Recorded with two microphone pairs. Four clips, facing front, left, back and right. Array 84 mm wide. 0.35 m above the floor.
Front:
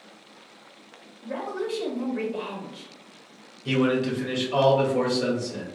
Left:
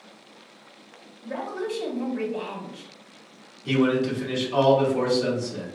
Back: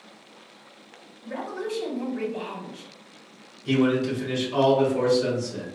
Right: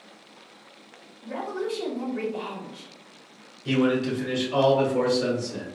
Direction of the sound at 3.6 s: 30° right.